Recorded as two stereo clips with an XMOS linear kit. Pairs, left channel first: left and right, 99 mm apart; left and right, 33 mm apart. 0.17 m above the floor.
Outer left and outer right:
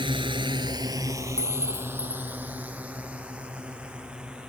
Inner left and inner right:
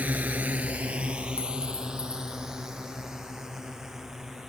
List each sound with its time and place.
0.0 s a drone: 60° right (ahead or behind); by 4.5 s 10° right (ahead or behind)
1.4 s a clink: 30° left (ahead or behind)